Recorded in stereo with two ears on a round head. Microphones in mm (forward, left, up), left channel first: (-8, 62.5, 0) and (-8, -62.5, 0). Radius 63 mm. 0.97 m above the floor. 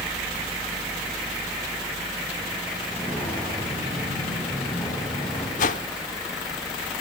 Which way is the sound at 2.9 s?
15° left (ahead or behind).